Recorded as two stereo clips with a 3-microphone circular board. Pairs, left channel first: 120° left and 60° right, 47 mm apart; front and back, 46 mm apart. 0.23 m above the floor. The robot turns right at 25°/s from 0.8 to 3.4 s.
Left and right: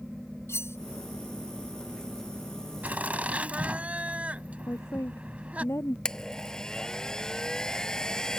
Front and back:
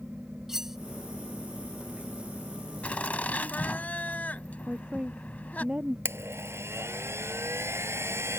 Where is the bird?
I don't hear a bird.